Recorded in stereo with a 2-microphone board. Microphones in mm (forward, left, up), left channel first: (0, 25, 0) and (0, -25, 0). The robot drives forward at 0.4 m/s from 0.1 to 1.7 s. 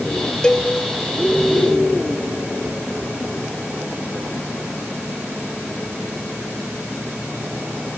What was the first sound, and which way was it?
A cowbell, 20° left (ahead or behind).